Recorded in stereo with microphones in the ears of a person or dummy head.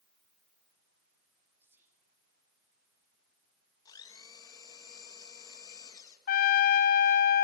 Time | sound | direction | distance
1.6 | whispering | 15° right (ahead or behind) | 2.5 m
3.9 | a blender | 20° left (ahead or behind) | 2.5 m
6.3 | a trumpet | 50° left (ahead or behind) | 1.0 m